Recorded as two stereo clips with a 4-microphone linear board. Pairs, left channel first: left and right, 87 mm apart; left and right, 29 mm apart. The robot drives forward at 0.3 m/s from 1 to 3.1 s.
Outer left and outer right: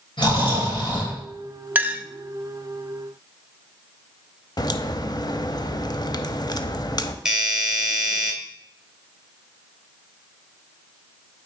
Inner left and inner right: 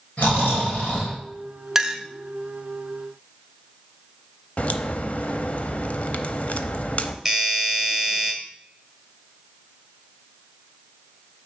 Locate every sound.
0.2 s snoring: 65° left (ahead or behind), 4.5 m
1.8 s a clink: 20° right (ahead or behind), 0.5 m
4.6 s a crack: 50° left (ahead or behind), 0.5 m
7.2 s a doorbell: 10° right (ahead or behind), 1.4 m